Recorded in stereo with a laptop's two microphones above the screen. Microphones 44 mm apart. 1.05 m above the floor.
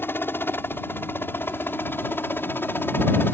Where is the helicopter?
55° left (ahead or behind).